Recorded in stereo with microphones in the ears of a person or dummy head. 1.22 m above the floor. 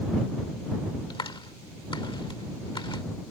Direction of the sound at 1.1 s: 25° left (ahead or behind).